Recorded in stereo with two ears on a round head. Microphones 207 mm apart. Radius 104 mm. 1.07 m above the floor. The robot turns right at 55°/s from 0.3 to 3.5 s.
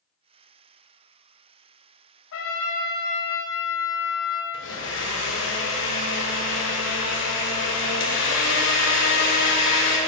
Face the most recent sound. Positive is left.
turn(degrees=55)  # may be behind; listen again after turning